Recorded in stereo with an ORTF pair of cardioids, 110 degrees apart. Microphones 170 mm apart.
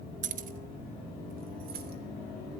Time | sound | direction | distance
0.2 | keys jangling | 45° right | 0.7 m